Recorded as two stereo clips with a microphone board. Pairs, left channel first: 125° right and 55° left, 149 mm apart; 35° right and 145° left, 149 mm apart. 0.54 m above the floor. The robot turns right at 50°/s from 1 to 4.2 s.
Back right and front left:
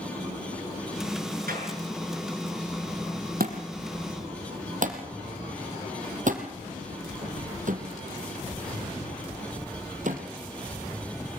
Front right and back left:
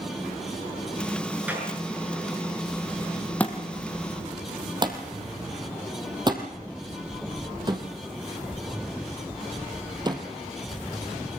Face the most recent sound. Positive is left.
turn(degrees=85)